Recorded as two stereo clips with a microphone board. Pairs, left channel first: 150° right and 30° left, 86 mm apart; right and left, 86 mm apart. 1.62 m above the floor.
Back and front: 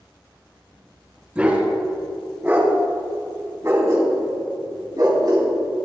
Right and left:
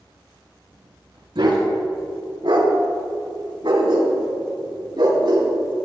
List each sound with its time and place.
1.4 s a dog barking: 105° left, 4.5 m; by 5.8 s 60° left, 4 m